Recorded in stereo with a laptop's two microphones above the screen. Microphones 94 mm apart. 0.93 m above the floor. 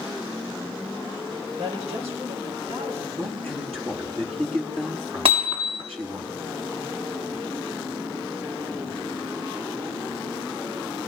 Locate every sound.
1.6 s a woman speaking: 85° right, 5 m
3.2 s a man speaking: 70° right (ahead or behind), 9.5 m
5.2 s hammering: 75° right (ahead or behind), 3.5 m